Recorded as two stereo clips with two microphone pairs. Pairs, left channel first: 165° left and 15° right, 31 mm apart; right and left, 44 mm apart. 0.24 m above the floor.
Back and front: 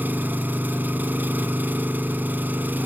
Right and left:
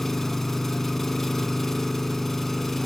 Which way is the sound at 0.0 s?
5° right.